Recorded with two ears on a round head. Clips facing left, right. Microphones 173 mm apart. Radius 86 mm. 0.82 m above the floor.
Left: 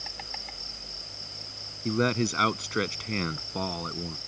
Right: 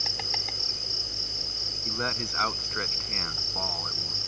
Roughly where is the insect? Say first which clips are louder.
Right 5 dB; right.